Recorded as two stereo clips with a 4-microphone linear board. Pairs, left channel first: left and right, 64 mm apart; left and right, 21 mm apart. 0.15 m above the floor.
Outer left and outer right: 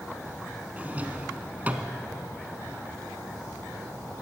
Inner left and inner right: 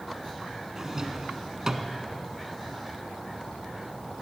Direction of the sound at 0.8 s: 25° right (ahead or behind).